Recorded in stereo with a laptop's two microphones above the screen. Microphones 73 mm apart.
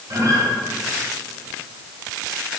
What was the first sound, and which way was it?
A guitar, 50° right (ahead or behind).